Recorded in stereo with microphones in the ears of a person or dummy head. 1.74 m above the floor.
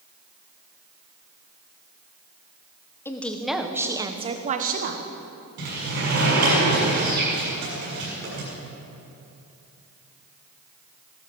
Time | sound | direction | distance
3.0 | a woman speaking | 15° left (ahead or behind) | 1.2 m
5.6 | a sliding door | 55° right (ahead or behind) | 6 m